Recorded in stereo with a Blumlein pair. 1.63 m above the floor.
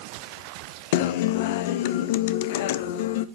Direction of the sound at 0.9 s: 50° left.